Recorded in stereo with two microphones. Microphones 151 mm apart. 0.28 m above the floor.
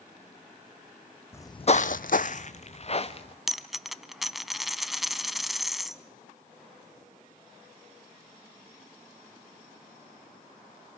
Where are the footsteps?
15° left (ahead or behind), 0.7 m; by 3.4 s 40° left (ahead or behind), 1.9 m.